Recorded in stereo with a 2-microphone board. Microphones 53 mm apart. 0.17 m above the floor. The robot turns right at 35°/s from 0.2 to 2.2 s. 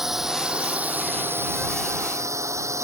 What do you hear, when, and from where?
0.0 s a drone: 175° right; by 2.8 s 105° right